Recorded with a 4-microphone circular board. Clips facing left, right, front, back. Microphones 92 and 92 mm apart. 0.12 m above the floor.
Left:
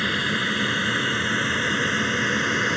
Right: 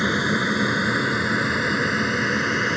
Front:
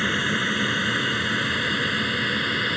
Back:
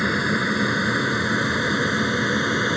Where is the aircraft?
125° right; by 2.8 s 170° right.